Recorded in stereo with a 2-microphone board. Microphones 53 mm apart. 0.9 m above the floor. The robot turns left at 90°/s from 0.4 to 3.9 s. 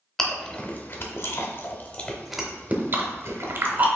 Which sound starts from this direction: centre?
Chewing, at 0.2 s.